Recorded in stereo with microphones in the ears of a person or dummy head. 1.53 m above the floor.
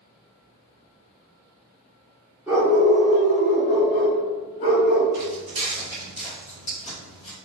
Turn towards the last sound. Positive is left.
turn(degrees=40)  # may be behind; listen again after turning